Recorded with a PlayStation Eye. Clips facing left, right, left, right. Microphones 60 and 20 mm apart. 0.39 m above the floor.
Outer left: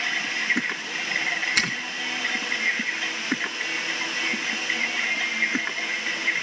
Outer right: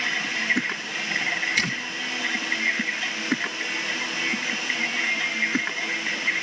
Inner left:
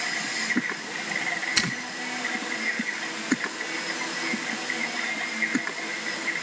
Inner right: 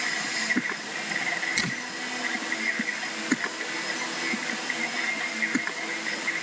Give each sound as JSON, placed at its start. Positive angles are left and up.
{"t": 1.6, "sound": "a finger snap", "side_deg": 70, "distance_m": 3.5}